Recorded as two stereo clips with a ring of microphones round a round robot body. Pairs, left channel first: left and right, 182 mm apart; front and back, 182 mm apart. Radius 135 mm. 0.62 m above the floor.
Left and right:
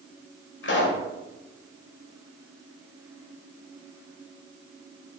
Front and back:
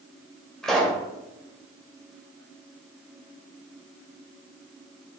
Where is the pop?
85° left, 2.5 m.